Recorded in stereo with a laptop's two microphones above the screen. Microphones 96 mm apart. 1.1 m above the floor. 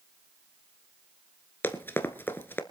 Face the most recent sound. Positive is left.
turn(degrees=20)  # may be behind; listen again after turning